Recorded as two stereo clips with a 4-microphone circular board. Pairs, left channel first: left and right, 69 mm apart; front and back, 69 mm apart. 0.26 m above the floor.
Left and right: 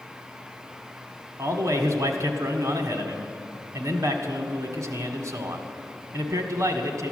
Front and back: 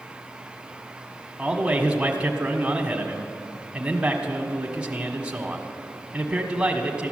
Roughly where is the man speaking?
Right.